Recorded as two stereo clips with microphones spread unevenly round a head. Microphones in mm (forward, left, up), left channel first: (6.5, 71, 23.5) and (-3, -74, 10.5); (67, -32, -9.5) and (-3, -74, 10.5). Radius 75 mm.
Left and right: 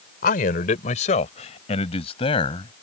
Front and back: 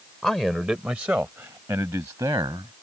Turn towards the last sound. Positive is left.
turn(degrees=145)